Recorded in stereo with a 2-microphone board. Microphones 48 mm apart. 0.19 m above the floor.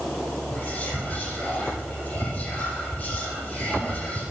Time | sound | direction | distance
0.5 | whispering | 25° left (ahead or behind) | 7.5 m